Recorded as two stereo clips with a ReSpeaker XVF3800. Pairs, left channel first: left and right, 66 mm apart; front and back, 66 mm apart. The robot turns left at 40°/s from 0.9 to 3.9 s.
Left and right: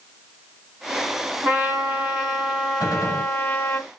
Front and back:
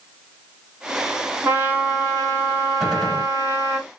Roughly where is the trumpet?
Behind right.